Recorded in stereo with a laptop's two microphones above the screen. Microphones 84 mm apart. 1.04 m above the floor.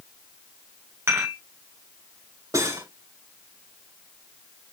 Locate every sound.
1.1 s dishes clattering: 30° right (ahead or behind), 2.5 m
2.5 s cutlery clinking: 40° right (ahead or behind), 4.5 m